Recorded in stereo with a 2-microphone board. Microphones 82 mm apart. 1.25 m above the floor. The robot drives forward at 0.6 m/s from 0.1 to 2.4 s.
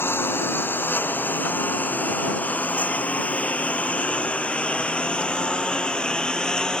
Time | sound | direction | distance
0.0 | a lawn mower | 30° left (ahead or behind) | ?